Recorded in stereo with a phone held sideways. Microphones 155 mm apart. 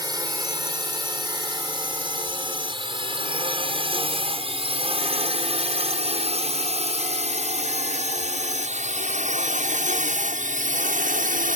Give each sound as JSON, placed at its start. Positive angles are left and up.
{"t": 0.0, "sound": "a drone", "side_deg": -25}